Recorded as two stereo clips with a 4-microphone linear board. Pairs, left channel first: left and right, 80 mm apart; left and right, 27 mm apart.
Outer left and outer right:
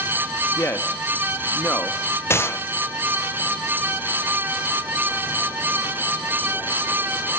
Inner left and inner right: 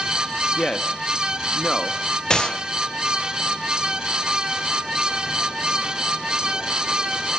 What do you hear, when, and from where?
0.6 s a man speaking: 30° left (ahead or behind), 1.3 m
2.3 s a gunshot: 30° left (ahead or behind), 0.5 m